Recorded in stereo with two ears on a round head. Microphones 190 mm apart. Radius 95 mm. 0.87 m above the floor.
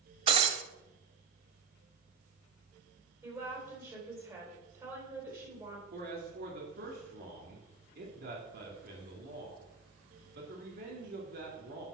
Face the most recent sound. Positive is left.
turn(degrees=-50)  # may be behind; listen again after turning